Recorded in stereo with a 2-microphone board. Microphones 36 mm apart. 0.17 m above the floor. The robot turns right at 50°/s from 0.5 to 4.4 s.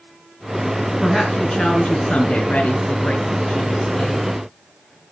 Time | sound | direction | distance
1.0 | a woman speaking | 10° left | 2.5 m